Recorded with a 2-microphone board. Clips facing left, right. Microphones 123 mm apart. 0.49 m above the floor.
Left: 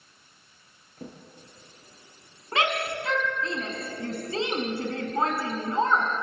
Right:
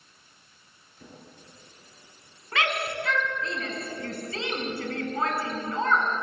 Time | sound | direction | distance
1.0 | a drawer | 50° left (ahead or behind) | 6 m
2.5 | a shout | 30° left (ahead or behind) | 4.5 m